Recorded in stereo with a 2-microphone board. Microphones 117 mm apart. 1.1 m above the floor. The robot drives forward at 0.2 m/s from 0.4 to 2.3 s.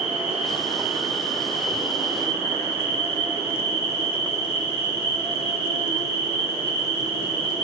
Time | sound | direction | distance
0.0 | an insect | 45° left (ahead or behind) | 1.9 m